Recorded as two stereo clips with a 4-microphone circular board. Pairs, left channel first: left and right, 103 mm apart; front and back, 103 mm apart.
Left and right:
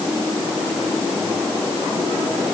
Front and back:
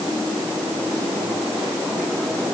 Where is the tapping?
I don't hear tapping.